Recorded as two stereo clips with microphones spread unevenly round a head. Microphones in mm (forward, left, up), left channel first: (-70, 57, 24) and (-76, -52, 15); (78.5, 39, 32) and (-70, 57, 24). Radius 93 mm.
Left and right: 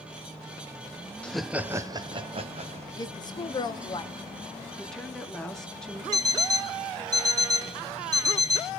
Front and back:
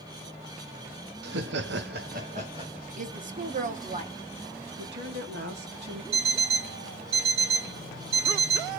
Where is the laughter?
170° left, 0.6 m; by 2.9 s 120° right, 1.0 m.